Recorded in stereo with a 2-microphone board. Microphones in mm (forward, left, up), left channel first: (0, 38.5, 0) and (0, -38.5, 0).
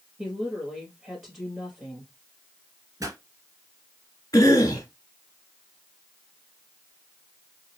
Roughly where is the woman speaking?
Centre.